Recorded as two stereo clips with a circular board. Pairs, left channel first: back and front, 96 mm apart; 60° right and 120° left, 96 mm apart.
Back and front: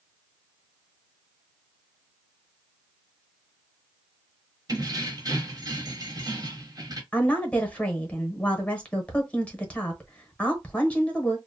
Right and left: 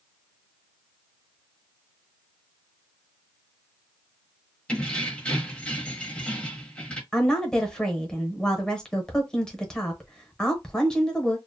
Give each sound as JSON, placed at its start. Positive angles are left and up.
{"t": 4.7, "sound": "keys jangling", "azimuth_deg": 15, "distance_m": 0.8}
{"t": 7.1, "sound": "a woman speaking", "azimuth_deg": -130, "distance_m": 0.9}